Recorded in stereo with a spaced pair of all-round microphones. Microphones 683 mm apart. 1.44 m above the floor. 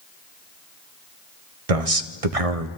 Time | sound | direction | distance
1.7 | a man speaking | 55° right (ahead or behind) | 1.0 m